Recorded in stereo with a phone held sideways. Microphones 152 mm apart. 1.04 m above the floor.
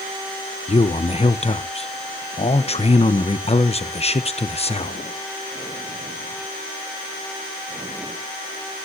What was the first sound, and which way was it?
A man speaking, 40° left (ahead or behind).